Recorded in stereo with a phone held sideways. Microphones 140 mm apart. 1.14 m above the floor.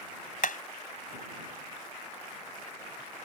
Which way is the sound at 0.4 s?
85° left.